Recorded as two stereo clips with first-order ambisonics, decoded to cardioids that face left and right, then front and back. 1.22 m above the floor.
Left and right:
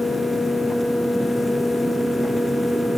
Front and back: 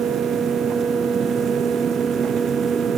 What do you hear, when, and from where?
Only background noise.